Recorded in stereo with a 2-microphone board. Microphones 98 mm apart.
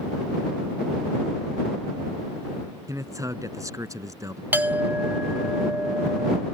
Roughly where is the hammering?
No hammering in this recording.